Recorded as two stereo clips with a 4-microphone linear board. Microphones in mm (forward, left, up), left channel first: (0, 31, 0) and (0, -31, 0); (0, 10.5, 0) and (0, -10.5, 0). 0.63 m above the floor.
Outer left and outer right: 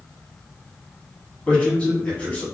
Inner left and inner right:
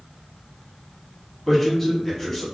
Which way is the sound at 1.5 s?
20° left (ahead or behind).